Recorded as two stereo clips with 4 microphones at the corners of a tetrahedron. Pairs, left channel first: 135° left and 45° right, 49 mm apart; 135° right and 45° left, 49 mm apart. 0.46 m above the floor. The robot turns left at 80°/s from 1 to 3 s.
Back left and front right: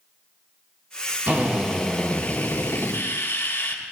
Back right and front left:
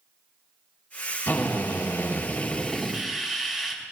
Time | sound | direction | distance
1.3 | a drill | 95° right | 3.5 m